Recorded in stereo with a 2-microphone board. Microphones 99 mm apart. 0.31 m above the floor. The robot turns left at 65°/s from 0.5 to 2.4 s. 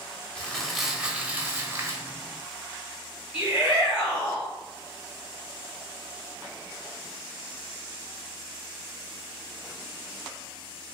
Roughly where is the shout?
Centre.